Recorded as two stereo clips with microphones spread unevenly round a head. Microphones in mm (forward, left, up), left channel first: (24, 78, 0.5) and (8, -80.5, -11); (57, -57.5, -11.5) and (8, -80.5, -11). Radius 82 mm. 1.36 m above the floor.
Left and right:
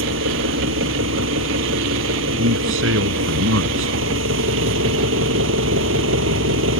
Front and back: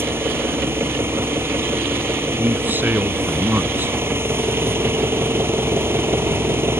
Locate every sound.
0.0 s an engine running: 110° right
2.4 s a man speaking: 100° right